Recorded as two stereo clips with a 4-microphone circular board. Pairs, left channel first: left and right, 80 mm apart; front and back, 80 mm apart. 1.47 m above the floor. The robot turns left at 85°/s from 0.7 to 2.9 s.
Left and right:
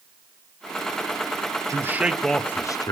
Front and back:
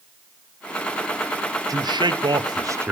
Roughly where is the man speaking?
Behind right.